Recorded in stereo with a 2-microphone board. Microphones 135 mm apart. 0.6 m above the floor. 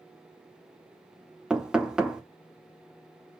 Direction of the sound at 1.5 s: 5° right (ahead or behind).